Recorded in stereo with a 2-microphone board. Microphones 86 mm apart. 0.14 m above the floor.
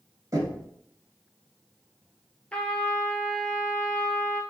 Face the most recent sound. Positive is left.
turn(degrees=15)  # may be behind; listen again after turning